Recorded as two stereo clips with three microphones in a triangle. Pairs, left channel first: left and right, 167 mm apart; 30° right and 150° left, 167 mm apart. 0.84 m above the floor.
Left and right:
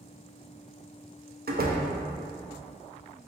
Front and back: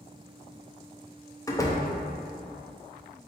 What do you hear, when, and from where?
1.5 s a door slam: 100° right, 0.6 m